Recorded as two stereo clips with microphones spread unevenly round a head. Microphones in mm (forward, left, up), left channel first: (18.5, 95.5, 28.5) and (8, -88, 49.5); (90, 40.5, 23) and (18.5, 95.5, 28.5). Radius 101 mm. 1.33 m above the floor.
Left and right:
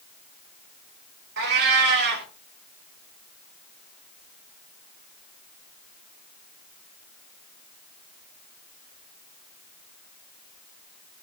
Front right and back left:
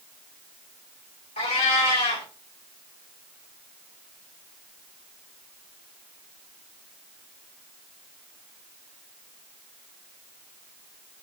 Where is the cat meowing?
65° right, 2 m.